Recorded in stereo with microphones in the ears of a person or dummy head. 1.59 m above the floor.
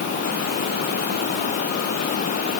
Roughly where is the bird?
I don't hear a bird.